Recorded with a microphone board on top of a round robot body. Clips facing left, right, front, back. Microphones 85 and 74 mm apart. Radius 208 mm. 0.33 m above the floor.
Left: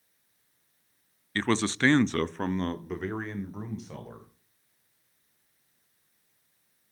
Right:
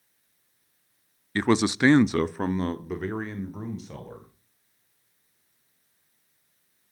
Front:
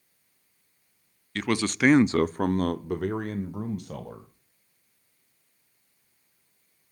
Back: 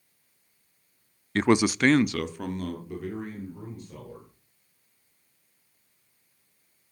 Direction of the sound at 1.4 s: 160° right.